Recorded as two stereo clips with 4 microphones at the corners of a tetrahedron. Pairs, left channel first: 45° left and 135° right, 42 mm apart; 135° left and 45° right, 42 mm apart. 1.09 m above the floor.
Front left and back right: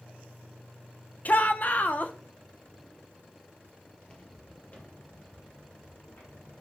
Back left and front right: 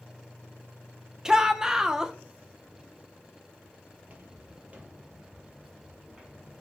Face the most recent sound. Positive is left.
turn(degrees=30)